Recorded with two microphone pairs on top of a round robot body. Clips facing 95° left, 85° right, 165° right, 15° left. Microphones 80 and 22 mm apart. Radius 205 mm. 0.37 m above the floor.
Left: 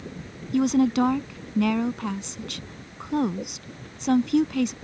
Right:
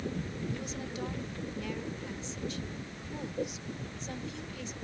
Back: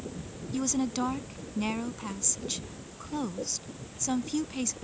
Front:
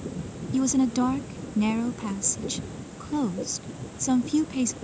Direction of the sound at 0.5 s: 105° left.